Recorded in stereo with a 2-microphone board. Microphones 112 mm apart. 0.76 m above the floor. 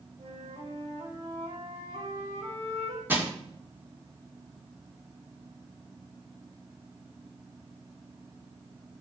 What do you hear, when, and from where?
0.2 s a flute: 75° right (ahead or behind), 3 m
3.1 s crushing: 20° right (ahead or behind), 1.9 m